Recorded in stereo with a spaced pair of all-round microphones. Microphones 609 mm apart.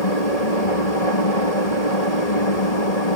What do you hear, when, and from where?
0.0 s a machine running: 85° left